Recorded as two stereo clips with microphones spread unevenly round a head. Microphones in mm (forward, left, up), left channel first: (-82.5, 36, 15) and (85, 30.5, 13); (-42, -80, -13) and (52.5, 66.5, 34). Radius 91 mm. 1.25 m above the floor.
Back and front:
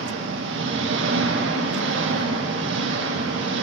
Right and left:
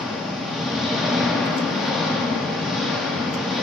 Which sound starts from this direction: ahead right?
An engine running, at 0.0 s.